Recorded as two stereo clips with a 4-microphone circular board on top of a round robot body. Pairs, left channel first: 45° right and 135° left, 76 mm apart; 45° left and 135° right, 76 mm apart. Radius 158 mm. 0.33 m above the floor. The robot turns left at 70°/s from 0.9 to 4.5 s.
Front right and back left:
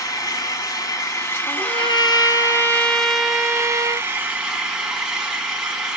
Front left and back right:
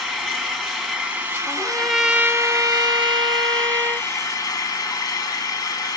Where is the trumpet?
15° right, 0.5 m; by 4.1 s 160° left, 0.5 m.